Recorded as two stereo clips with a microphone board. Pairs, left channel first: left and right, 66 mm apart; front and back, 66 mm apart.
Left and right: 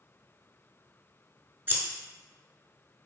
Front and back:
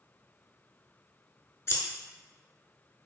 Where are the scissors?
35° right, 0.5 m.